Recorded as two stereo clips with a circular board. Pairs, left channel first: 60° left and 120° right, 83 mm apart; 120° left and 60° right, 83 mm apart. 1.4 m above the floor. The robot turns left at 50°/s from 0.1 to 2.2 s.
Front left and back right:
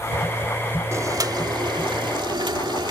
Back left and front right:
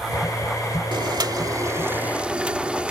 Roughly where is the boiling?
Right.